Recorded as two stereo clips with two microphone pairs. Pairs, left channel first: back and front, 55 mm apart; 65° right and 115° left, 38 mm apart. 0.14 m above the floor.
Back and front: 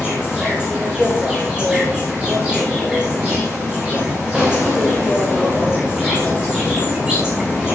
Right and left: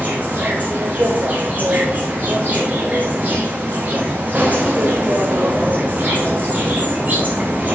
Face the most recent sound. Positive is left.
turn(degrees=70)